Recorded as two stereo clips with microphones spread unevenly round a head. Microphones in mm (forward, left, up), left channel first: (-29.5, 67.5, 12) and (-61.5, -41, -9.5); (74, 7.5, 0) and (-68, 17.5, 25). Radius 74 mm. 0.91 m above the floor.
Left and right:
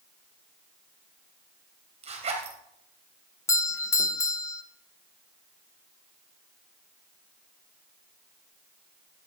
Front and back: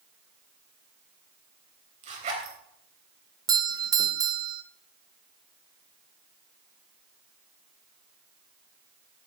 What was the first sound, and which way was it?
A zipper, 135° right.